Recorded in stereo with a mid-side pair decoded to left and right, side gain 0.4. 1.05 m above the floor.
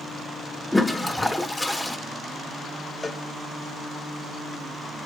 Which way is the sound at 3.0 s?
30° left.